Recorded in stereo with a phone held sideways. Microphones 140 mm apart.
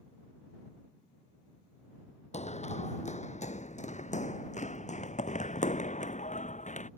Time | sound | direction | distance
2.3 | running footsteps | 55° left (ahead or behind) | ?